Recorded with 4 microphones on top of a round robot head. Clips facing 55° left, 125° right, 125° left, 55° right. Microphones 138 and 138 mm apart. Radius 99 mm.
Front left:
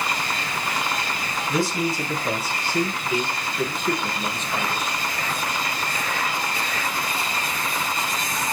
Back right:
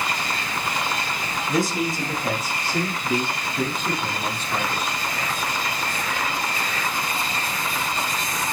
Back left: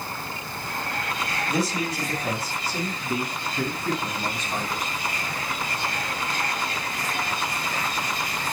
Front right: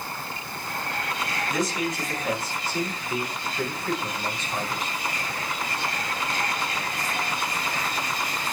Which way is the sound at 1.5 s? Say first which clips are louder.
Even, back left 1 dB; 175° right.